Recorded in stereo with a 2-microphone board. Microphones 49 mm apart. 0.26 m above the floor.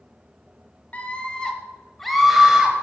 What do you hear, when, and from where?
0.9 s a scream: 30° left (ahead or behind), 1.1 m; by 2.7 s 15° right (ahead or behind), 1.0 m